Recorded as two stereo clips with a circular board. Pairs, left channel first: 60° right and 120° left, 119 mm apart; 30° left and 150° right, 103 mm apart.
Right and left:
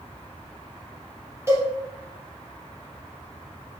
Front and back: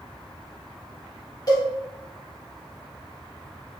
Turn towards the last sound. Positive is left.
turn(degrees=60)